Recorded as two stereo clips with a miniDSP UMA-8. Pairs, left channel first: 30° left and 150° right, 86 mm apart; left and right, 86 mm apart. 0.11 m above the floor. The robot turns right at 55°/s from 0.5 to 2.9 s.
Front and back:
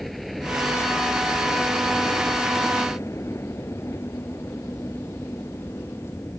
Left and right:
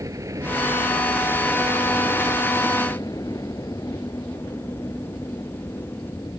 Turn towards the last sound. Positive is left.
turn(degrees=70)